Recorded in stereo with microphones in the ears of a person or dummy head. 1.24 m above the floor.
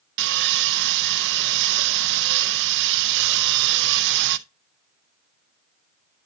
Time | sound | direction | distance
0.2 | sawing | 65° right (ahead or behind) | 0.8 m